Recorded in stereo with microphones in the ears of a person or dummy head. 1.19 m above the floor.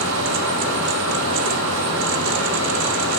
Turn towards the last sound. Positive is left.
turn(degrees=-70)  # may be behind; listen again after turning